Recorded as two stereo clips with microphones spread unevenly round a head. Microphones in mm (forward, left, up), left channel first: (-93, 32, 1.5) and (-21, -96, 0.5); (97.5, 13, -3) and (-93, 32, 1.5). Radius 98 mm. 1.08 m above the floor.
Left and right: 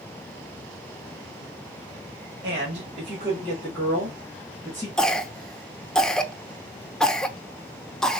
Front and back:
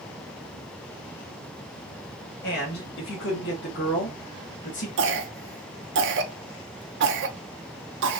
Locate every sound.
2.4 s a man speaking: 35° right, 1.3 m; by 4.9 s 45° left, 1.5 m
5.0 s a cough: 155° right, 0.7 m